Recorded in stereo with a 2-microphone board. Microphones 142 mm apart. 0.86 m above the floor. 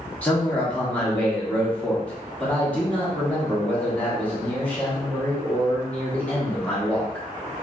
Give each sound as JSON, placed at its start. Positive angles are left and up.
{"t": 0.2, "sound": "a man speaking", "side_deg": 10, "distance_m": 1.0}